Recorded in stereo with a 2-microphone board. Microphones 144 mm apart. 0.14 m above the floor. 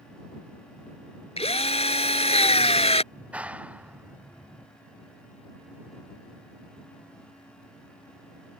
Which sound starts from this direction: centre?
A clap, at 3.1 s.